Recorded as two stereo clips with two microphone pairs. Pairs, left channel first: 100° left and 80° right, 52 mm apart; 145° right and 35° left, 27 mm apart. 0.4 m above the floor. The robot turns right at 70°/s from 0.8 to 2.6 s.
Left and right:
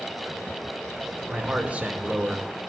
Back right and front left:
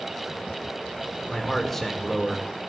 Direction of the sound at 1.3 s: 105° right.